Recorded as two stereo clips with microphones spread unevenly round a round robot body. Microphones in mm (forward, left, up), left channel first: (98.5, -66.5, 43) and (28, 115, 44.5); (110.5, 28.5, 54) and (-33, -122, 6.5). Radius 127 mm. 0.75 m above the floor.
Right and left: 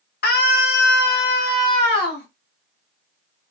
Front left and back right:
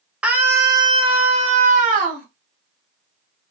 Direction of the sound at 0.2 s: 60° right.